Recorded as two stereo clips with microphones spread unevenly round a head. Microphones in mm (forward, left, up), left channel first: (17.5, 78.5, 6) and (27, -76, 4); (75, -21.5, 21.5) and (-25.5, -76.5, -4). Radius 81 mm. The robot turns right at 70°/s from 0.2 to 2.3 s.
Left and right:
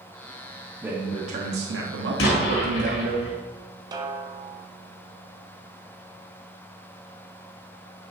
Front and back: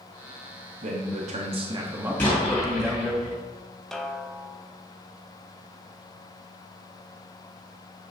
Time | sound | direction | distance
0.8 | a man speaking | 170° right | 1.2 m
2.2 | an explosion | 105° left | 3.5 m
3.9 | a snare drum | 80° right | 0.8 m